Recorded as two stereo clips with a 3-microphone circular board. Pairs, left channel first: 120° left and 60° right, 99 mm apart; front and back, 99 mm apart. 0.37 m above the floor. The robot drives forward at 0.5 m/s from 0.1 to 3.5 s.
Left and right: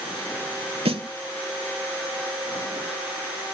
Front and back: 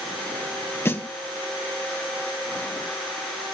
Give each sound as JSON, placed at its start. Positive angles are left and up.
{"t": 0.8, "sound": "a snare drum", "azimuth_deg": -65, "distance_m": 0.8}